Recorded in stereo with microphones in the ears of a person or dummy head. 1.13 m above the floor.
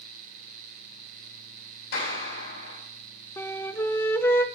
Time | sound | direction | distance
1.9 | a clap | 65° left (ahead or behind) | 6 m
3.4 | a flute | 15° left (ahead or behind) | 0.5 m